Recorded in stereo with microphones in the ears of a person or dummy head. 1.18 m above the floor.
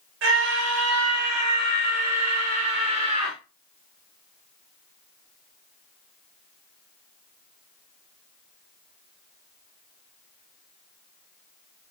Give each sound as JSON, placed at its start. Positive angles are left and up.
{"t": 0.2, "sound": "a scream", "side_deg": -65, "distance_m": 3.0}